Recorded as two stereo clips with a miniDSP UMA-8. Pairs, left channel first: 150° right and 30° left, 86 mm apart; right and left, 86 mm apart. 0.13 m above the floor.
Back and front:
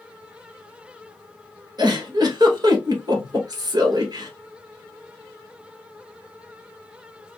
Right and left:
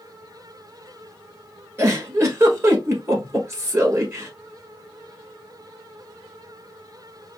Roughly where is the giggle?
Ahead left.